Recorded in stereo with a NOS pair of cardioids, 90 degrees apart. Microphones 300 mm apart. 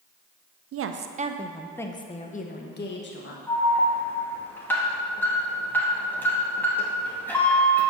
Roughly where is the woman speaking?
Ahead right.